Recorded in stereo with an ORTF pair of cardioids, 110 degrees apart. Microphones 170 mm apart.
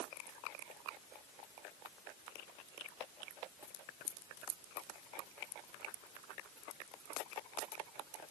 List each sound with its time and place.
Only background noise.